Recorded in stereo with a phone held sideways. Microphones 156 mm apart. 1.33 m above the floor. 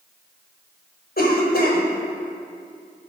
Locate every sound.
1.2 s a cough: 80° left, 5 m